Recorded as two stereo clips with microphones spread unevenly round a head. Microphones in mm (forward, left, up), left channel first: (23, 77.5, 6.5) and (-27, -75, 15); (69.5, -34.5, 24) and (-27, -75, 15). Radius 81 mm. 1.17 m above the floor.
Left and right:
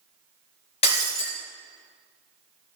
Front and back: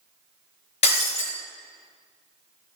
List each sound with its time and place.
0.8 s breaking glass: 15° left, 4 m